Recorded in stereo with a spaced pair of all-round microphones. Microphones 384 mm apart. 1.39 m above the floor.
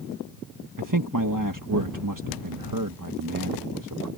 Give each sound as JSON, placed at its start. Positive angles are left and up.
{"t": 0.8, "sound": "a man speaking", "side_deg": -55}